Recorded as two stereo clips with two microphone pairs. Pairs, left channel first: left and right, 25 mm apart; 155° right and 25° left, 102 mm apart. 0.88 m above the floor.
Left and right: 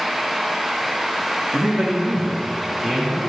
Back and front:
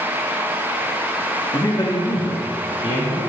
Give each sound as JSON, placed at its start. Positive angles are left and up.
{"t": 1.5, "sound": "a man speaking", "azimuth_deg": -100, "distance_m": 1.0}